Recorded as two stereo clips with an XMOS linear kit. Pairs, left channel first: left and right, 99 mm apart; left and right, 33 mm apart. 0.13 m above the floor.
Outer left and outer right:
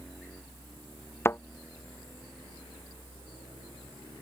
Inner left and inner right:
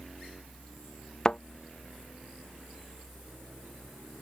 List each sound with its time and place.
1.2 s a thud: 25° left (ahead or behind)